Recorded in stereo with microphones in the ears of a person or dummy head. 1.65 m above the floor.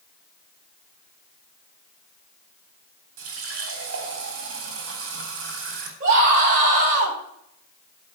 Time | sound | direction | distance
3.2 | a running tap | 70° right (ahead or behind) | 3 m
6.0 | a scream | 45° right (ahead or behind) | 4 m